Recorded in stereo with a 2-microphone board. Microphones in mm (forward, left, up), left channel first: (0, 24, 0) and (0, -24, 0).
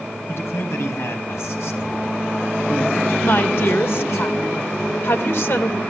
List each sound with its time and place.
0.3 s a man speaking: 65° left (ahead or behind), 4 m
3.2 s a woman speaking: 55° left (ahead or behind), 2.5 m